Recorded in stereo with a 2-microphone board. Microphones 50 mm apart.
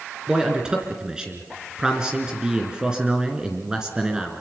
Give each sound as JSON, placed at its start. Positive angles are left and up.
{"t": 0.3, "sound": "a man speaking", "side_deg": -15, "distance_m": 2.5}